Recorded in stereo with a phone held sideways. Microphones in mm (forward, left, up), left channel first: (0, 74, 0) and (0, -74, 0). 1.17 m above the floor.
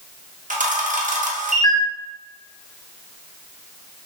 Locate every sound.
0.5 s a camera shutter: 60° right (ahead or behind), 0.6 m